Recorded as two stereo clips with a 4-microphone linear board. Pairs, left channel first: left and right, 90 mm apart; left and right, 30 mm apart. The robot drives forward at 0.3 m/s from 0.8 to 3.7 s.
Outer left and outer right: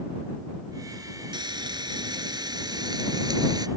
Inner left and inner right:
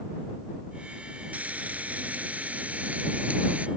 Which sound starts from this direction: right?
Frying, at 1.3 s.